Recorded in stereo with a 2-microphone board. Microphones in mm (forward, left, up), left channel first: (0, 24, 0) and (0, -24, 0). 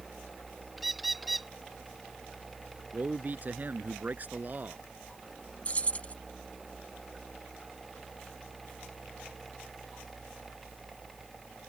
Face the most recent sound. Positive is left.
turn(degrees=30)  # may be behind; listen again after turning